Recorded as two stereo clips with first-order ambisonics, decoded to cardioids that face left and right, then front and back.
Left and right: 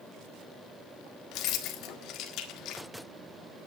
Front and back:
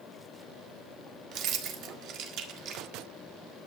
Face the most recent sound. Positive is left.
turn(degrees=135)